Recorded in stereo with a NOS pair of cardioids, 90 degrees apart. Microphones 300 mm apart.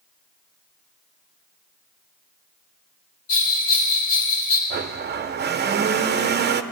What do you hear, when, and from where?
3.3 s a bell: 65° left, 4 m
4.7 s a blender: 35° right, 0.7 m